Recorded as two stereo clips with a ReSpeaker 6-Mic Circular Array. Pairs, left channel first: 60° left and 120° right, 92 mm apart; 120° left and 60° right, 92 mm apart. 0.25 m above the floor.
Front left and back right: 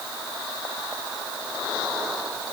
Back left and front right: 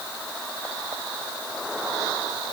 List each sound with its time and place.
Only background noise.